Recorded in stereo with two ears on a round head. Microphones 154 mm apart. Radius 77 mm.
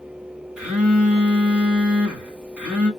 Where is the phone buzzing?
10° right (ahead or behind), 1.5 m.